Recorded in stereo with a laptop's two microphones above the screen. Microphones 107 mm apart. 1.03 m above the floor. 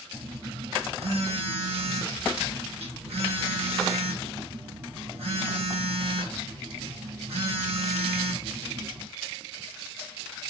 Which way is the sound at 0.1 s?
75° right (ahead or behind).